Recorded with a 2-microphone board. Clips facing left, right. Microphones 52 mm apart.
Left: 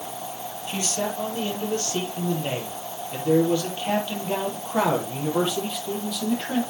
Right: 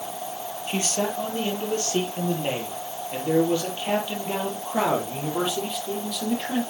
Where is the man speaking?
30° right (ahead or behind), 5.5 m; by 6.6 s 5° left (ahead or behind), 6.5 m.